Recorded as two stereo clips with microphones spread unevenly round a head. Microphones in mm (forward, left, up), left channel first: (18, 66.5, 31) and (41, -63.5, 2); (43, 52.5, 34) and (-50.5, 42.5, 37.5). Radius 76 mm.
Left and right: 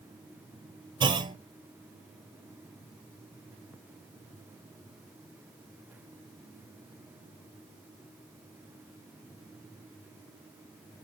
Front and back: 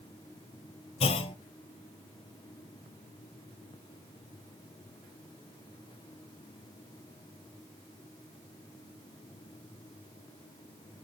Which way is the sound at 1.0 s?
25° right.